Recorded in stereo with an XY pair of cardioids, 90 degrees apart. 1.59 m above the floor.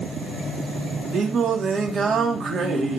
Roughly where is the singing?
Ahead right.